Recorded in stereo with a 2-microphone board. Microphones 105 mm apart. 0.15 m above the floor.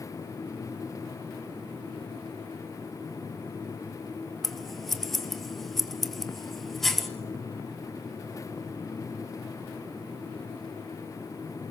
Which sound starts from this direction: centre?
Scissors, at 4.4 s.